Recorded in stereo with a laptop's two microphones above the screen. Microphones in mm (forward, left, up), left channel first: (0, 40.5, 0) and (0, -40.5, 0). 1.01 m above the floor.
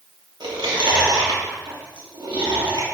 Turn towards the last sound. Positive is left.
turn(degrees=-75)  # may be behind; listen again after turning